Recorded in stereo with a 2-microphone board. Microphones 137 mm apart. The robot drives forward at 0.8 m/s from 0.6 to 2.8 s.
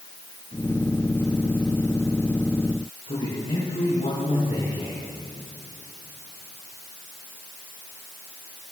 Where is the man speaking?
60° left (ahead or behind), 6 m.